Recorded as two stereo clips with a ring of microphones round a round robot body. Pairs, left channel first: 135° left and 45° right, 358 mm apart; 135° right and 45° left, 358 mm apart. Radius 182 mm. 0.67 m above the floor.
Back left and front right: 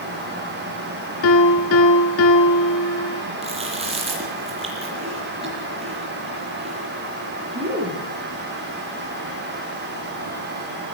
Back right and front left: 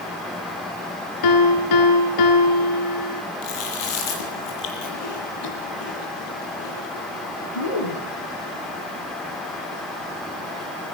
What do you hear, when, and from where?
1.2 s a piano: 170° right, 3 m
3.4 s chewing: 120° right, 9.5 m